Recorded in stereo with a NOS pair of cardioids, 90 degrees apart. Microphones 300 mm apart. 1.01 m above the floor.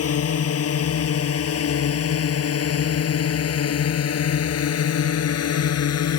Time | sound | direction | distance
0.0 | a drone | 50° left | ?